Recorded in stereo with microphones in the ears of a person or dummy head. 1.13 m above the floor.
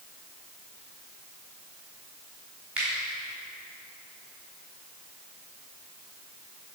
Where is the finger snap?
10° right (ahead or behind), 3 m.